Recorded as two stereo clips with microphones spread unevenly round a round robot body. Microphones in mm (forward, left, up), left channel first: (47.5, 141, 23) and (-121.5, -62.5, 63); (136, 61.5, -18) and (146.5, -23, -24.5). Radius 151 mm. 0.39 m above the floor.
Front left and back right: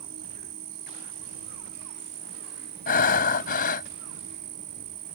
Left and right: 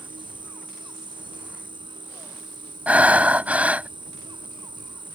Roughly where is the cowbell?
No cowbell in this recording.